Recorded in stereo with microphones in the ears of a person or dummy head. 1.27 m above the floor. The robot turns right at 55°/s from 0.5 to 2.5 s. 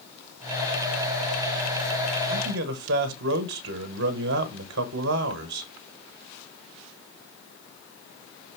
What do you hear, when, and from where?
2.3 s a man speaking: 45° right (ahead or behind), 1.1 m; by 5.7 s 60° right (ahead or behind), 1.1 m